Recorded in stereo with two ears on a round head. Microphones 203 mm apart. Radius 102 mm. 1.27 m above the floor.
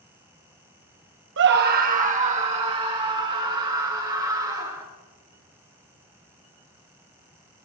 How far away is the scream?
About 0.8 m.